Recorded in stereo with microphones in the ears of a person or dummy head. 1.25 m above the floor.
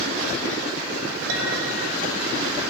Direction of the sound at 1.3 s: 75° right (ahead or behind).